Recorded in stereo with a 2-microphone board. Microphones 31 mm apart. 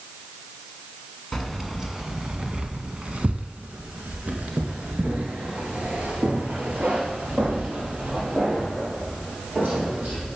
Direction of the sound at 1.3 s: Centre (ahead or behind).